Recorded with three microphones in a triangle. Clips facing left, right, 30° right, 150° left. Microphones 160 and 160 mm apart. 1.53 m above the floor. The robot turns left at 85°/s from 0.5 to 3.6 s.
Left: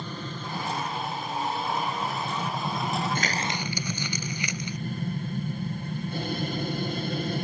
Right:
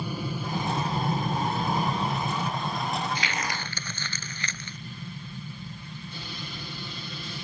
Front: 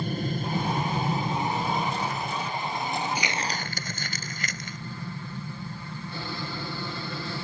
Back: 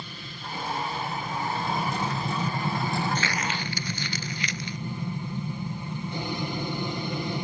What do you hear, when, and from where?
0.0 s an aircraft: 15° right; by 7.5 s 85° left
3.1 s crumpling: 50° left; by 4.8 s 15° left